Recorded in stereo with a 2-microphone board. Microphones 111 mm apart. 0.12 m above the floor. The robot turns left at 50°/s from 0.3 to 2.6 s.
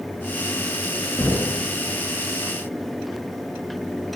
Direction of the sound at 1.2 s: 20° left (ahead or behind).